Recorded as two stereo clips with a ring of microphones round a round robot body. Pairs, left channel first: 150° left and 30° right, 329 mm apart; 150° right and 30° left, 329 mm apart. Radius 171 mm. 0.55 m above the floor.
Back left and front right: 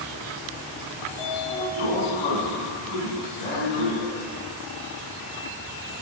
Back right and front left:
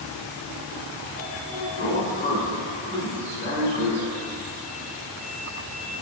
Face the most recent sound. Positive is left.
turn(degrees=140)